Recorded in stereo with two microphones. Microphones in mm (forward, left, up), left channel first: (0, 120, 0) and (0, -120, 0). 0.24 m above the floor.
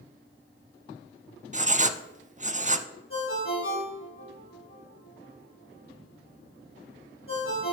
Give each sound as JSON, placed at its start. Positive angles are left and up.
{"t": 1.5, "sound": "writing", "side_deg": -30, "distance_m": 0.5}
{"t": 3.1, "sound": "a ringtone", "side_deg": 60, "distance_m": 4.5}